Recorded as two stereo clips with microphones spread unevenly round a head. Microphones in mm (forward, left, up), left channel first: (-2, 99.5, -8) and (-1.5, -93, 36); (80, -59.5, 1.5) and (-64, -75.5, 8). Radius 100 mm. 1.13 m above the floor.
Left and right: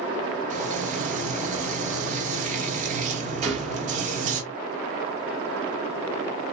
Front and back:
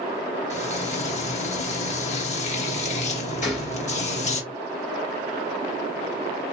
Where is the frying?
35° right, 1.3 m.